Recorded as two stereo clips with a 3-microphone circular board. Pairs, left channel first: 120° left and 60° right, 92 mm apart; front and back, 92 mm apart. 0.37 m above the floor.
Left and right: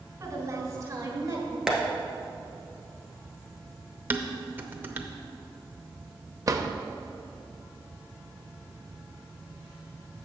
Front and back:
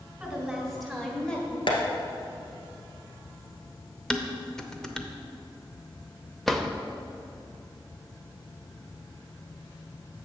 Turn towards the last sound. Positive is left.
turn(degrees=-85)